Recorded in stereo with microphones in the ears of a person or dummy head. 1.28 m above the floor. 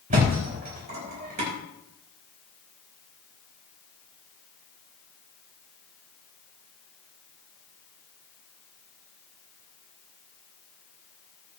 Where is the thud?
45° right (ahead or behind), 4.5 m.